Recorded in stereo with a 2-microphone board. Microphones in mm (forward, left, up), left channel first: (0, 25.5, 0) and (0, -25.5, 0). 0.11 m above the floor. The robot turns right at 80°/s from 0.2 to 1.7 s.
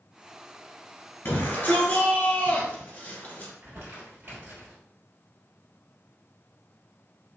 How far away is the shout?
About 1.7 m.